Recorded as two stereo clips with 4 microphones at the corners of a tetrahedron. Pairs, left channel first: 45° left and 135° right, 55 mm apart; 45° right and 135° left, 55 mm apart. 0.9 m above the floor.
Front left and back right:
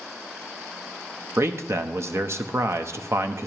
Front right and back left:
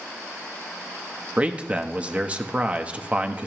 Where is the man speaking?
165° right, 0.6 m.